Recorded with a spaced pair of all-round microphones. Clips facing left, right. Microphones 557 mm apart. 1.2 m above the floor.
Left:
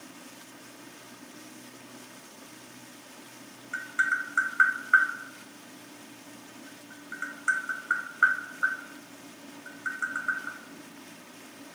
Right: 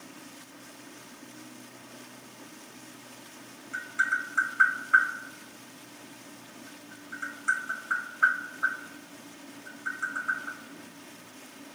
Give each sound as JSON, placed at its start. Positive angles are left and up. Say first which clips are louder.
{"t": 3.7, "sound": "tapping", "louder": "left 1 dB", "side_deg": 40, "distance_m": 0.8}